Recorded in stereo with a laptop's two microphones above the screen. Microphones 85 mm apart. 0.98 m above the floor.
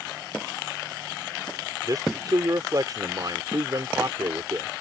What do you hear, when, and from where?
1.8 s a man speaking: 45° right (ahead or behind)